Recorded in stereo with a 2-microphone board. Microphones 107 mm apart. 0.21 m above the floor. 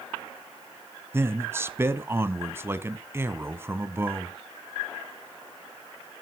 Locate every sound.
1.1 s a man speaking: 20° right (ahead or behind), 1.2 m